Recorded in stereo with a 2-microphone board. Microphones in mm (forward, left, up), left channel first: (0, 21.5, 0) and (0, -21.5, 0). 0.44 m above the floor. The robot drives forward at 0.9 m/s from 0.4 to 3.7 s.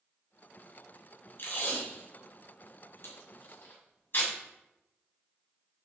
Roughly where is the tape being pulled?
Left.